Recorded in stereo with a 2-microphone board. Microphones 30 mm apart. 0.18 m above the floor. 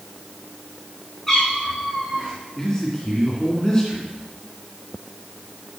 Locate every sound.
1.3 s a cat meowing: 10° left (ahead or behind), 4.5 m
2.6 s a man speaking: 20° left (ahead or behind), 2 m